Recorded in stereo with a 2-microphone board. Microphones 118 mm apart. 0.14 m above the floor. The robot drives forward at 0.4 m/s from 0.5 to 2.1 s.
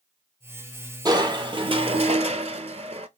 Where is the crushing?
35° right (ahead or behind), 0.8 m; by 3.1 s 65° right (ahead or behind), 0.5 m.